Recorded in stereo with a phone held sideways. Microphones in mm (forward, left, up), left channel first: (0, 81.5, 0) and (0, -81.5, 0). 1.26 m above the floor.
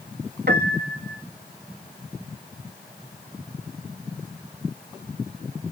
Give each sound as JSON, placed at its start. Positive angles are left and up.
{"t": 0.5, "sound": "a piano", "side_deg": -85, "distance_m": 1.8}